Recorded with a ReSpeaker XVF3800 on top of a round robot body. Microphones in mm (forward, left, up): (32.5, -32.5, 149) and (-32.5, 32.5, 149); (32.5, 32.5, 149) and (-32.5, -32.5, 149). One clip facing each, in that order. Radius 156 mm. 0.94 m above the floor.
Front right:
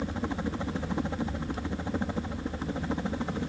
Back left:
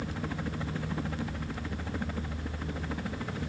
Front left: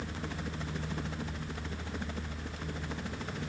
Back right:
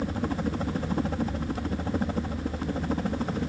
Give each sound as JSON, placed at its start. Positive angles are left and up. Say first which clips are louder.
{"t": 0.0, "sound": "a helicopter", "louder": "front right 4 dB, back right 11 dB", "azimuth_deg": -105}